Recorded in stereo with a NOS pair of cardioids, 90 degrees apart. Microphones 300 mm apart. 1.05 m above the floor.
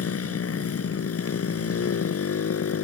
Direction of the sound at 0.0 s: 45° left.